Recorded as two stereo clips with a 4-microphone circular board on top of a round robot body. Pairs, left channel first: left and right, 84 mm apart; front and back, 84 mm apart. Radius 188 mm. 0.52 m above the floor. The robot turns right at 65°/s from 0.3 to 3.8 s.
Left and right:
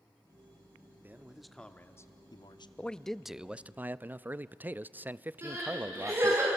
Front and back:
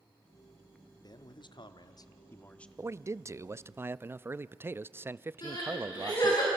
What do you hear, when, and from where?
1.0 s a man speaking: 30° right, 1.5 m; by 2.7 s 80° left, 1.5 m
2.8 s a man speaking: 150° left, 0.7 m; by 6.4 s 140° right, 0.7 m
5.4 s crying: 40° right, 7.5 m